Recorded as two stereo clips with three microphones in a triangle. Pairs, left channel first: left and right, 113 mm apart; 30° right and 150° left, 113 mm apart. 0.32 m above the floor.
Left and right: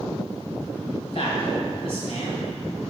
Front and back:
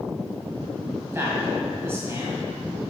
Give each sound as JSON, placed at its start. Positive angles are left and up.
{"t": 1.0, "sound": "a man speaking", "azimuth_deg": 85, "distance_m": 1.9}